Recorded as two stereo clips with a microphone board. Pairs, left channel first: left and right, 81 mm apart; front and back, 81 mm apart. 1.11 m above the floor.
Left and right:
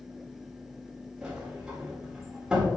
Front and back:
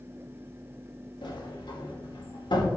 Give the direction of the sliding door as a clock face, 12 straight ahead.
12 o'clock.